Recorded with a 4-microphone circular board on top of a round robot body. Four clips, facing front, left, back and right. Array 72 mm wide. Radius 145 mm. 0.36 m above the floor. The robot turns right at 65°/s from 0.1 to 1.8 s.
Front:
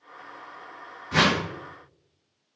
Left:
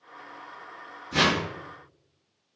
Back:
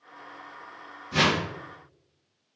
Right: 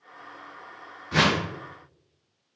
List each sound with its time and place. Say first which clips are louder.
1.1 s a whoosh: right 1 dB, front 2 dB; 25° right, 0.9 m; by 1.4 s 5° right, 0.9 m